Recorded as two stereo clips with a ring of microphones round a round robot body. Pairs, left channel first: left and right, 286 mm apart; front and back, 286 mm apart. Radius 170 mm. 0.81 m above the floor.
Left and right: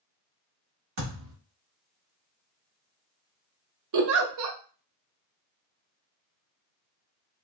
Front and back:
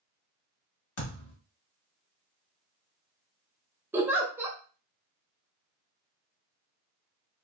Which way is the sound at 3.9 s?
100° right.